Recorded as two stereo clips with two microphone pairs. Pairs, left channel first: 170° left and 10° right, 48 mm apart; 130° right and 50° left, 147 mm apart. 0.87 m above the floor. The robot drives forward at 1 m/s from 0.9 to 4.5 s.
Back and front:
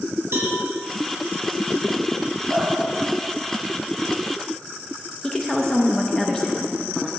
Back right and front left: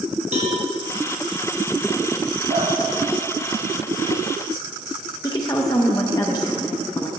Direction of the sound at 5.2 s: 125° right.